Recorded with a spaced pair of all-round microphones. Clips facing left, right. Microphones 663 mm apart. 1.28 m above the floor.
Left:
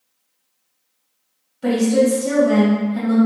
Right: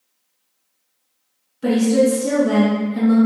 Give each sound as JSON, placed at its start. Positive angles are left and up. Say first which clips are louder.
{"t": 1.6, "sound": "a woman speaking", "louder": "right 1 dB", "side_deg": 0, "distance_m": 1.0}